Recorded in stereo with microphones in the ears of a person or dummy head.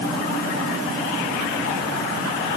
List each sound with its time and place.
Only background noise.